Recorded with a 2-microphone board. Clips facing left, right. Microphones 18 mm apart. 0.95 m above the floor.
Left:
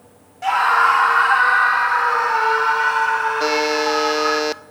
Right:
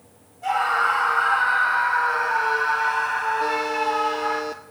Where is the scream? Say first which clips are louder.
Left 6 dB; 65° left (ahead or behind), 3 m; by 4.4 s 70° left (ahead or behind), 6 m.